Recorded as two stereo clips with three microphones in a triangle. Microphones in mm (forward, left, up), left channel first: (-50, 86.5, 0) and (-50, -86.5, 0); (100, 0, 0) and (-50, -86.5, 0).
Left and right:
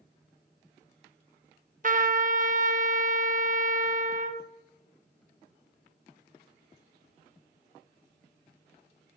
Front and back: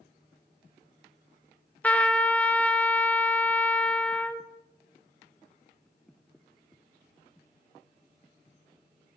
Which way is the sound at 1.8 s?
50° right.